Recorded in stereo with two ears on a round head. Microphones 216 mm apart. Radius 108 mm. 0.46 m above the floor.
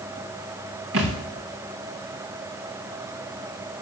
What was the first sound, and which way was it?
A thud, 60° right (ahead or behind).